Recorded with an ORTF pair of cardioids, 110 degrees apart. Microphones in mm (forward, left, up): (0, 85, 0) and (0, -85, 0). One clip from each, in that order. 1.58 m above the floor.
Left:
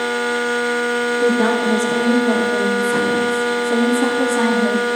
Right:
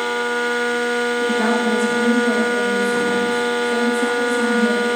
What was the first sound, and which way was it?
A woman speaking, 20° left.